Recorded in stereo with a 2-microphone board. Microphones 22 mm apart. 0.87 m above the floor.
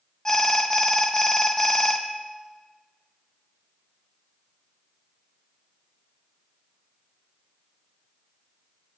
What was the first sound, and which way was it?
An alarm, 20° left (ahead or behind).